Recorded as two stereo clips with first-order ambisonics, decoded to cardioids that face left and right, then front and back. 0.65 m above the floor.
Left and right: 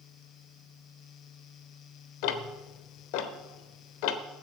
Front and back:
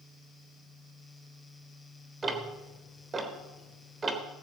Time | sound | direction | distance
2.2 | ticking | 105° left | 1.4 m